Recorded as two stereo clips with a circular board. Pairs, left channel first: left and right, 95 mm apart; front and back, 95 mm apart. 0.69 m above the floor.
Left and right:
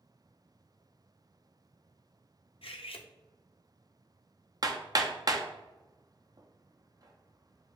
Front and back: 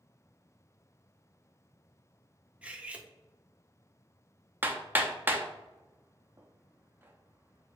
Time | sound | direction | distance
2.6 | cutlery clinking | 105° left | 0.5 m
4.6 | hammering | 115° right | 0.5 m